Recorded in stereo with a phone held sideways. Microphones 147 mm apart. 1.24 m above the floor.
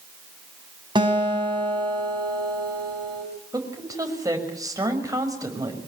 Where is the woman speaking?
25° right (ahead or behind), 6 m.